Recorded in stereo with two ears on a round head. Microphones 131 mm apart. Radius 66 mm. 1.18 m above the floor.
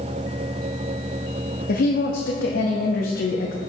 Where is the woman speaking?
70° left (ahead or behind), 0.7 m.